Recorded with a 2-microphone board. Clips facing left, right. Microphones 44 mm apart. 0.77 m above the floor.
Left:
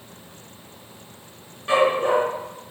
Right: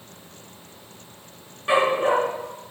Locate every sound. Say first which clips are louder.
1.7 s a dog barking: left 1 dB; 15° right (ahead or behind), 4 m